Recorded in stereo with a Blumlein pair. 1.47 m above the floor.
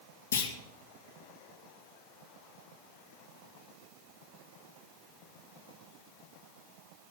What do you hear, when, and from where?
0.3 s a clunk: 70° left, 1.9 m